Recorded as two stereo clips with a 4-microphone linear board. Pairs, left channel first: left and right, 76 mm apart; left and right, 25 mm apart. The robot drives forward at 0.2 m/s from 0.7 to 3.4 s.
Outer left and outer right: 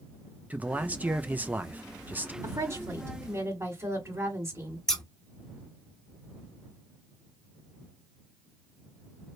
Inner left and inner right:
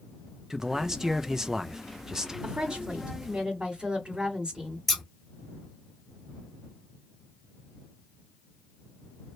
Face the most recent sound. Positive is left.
turn(degrees=10)  # may be behind; listen again after turning